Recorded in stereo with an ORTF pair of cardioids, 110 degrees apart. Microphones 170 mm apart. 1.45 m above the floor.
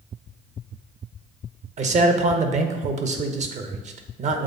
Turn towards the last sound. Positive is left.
turn(degrees=-45)